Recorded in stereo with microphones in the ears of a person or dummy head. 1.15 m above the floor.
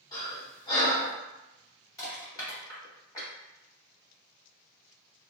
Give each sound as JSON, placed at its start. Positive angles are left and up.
{"t": 0.1, "sound": "breathing", "side_deg": 25, "distance_m": 1.2}
{"t": 2.0, "sound": "crushing", "side_deg": 25, "distance_m": 1.5}